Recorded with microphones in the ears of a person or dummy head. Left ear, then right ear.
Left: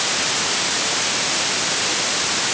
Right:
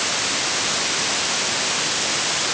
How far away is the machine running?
I don't hear a machine running.